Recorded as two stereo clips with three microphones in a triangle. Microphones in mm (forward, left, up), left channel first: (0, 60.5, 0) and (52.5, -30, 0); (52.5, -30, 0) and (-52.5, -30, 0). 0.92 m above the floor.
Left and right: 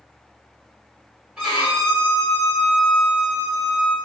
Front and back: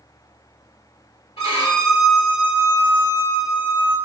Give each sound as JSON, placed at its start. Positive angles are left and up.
{"t": 1.4, "sound": "a violin", "azimuth_deg": 25, "distance_m": 1.2}